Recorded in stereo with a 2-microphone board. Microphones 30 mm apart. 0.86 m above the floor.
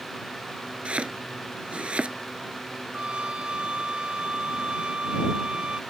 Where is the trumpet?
40° right (ahead or behind).